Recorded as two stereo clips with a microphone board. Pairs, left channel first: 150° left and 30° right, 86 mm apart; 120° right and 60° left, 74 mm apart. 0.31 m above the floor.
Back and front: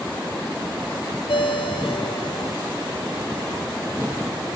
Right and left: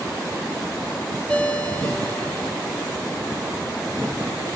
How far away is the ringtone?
About 4 m.